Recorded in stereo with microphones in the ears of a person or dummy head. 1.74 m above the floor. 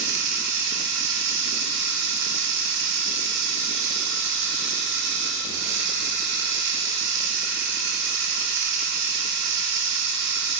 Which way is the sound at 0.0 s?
65° right (ahead or behind).